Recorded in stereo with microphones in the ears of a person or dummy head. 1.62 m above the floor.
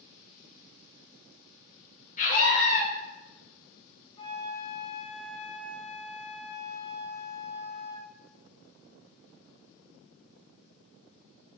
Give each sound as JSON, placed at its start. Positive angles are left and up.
{"t": 2.2, "sound": "a scream", "side_deg": 35, "distance_m": 3.5}
{"t": 4.2, "sound": "a flute", "side_deg": 25, "distance_m": 2.0}